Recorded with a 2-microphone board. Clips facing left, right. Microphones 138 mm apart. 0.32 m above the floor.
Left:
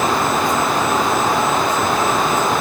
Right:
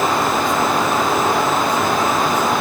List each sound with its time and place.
Only background noise.